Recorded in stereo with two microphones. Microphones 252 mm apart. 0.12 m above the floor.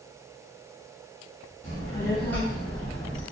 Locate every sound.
1.6 s a child speaking: 5° left (ahead or behind), 1.8 m